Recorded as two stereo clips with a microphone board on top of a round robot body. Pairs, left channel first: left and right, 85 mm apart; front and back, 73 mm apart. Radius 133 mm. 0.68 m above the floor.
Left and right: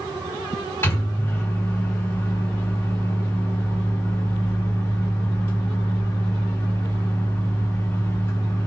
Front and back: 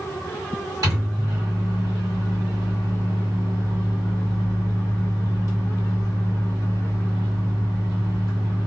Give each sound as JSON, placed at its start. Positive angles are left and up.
{"t": 0.8, "sound": "a microwave", "azimuth_deg": 150, "distance_m": 1.7}